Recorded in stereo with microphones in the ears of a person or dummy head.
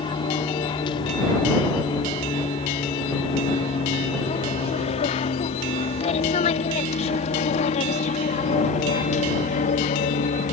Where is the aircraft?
25° left (ahead or behind); by 10.5 s 40° left (ahead or behind).